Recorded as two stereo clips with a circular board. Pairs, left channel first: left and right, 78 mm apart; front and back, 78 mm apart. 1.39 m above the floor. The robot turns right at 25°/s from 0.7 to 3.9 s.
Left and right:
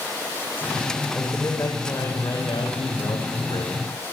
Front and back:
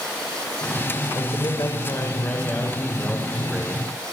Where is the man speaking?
25° left, 5 m; by 3.8 s 95° left, 5 m.